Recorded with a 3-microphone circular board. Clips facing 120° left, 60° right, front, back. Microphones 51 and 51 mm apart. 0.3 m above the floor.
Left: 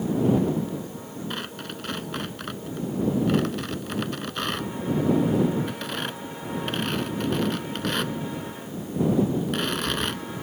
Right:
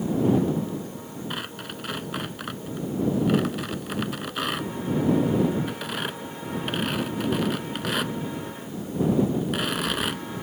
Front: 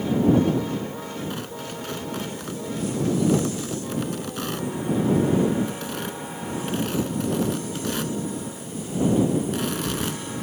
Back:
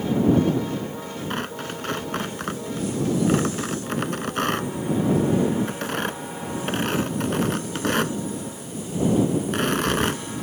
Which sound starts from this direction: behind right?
Tearing paper, at 1.3 s.